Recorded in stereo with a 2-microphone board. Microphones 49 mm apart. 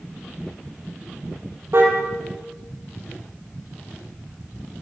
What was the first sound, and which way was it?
A car horn, 55° right (ahead or behind).